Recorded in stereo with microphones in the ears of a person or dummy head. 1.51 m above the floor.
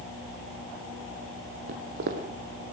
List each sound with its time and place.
1.7 s footsteps: 50° right (ahead or behind), 2.5 m